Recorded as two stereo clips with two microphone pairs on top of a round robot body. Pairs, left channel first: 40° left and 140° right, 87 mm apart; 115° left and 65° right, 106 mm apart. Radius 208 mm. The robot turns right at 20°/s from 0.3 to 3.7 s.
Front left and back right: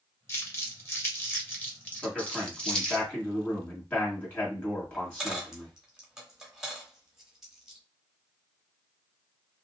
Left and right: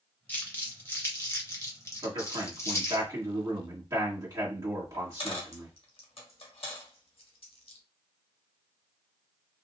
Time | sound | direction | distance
0.3 | crumpling | 70° left | 1.4 m
2.0 | a man speaking | 55° right | 1.7 m
4.9 | a dropped coin | 140° left | 1.1 m